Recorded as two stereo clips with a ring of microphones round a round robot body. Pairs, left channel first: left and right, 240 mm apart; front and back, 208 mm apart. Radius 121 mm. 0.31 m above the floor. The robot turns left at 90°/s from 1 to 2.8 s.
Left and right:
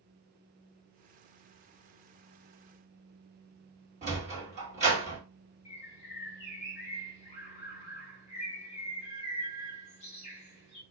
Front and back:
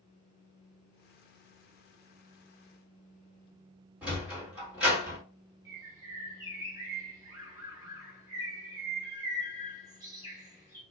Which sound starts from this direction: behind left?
A bird, at 5.7 s.